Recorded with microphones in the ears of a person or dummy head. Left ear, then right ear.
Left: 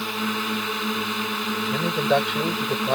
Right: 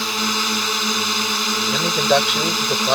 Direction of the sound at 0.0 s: 85° right.